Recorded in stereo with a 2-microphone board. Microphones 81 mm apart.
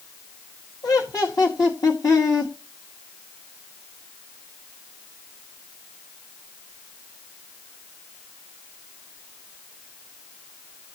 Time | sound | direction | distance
0.8 | laughter | 55° left (ahead or behind) | 2 m